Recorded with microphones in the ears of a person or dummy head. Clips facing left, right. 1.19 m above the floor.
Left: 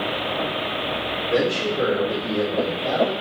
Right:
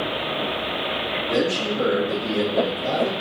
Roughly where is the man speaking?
Right.